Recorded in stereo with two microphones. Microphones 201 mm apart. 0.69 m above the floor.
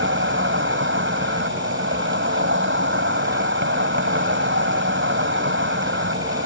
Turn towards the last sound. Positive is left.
turn(degrees=-75)  # may be behind; listen again after turning